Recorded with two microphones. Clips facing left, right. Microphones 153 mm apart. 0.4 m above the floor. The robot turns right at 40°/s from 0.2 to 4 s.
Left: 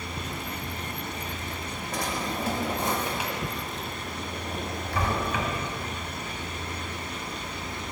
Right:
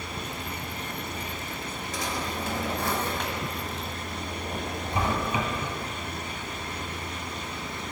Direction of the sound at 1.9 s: 60° left (ahead or behind).